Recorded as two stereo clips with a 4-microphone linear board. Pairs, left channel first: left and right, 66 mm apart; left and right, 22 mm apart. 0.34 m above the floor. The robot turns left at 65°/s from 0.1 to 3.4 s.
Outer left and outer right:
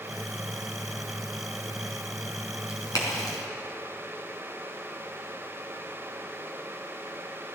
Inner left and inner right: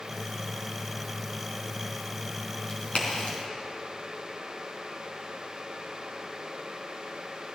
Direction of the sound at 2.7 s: 50° left (ahead or behind).